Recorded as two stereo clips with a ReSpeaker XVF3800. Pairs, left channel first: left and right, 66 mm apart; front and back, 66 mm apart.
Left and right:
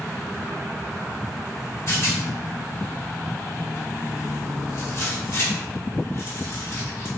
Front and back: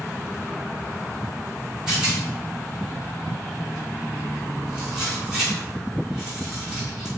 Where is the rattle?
105° left, 1.4 m.